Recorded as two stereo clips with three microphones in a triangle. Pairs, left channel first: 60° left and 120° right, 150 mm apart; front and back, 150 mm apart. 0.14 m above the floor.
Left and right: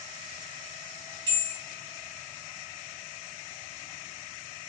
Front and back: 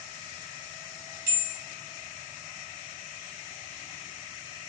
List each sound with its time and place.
1.3 s a bell: 120° left, 1.7 m